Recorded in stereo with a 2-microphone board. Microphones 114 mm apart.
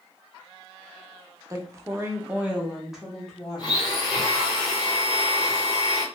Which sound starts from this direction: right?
A woman speaking, at 1.5 s.